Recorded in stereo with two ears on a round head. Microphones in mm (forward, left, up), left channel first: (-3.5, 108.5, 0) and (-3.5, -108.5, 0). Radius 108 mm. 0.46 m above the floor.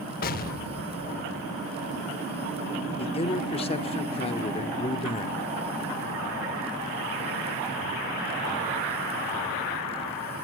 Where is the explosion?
40° left (ahead or behind), 0.6 m.